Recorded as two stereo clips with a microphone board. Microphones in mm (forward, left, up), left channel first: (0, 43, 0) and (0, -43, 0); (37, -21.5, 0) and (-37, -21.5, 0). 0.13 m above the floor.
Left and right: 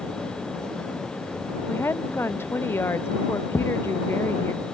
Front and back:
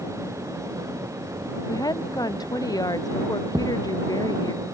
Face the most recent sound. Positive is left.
turn(degrees=150)